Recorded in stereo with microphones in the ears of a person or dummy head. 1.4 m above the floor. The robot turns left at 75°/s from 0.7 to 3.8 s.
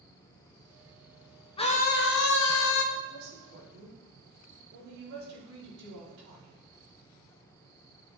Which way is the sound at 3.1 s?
60° right (ahead or behind).